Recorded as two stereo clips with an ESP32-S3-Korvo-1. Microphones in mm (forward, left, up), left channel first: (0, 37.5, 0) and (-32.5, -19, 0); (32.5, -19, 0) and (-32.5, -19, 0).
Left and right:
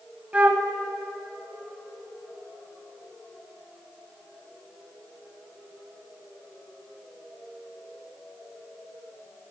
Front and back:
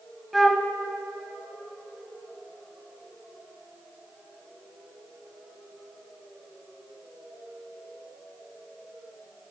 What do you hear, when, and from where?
0.3 s a flute: 90° right, 0.7 m